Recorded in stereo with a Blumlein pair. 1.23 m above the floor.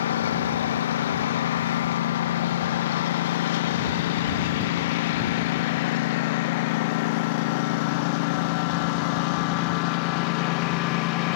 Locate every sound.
0.0 s a lawn mower: 60° left; by 11.4 s 40° left